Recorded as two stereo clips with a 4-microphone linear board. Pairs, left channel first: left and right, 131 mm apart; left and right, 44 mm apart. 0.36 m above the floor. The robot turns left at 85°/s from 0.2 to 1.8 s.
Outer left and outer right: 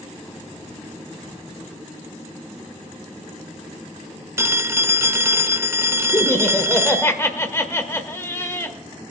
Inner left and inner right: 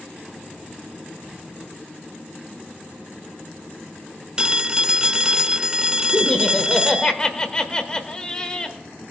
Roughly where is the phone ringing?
Right.